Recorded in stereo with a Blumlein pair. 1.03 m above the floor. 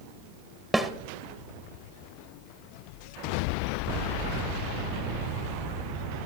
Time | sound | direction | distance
0.7 | a snare drum | 5° right | 0.6 m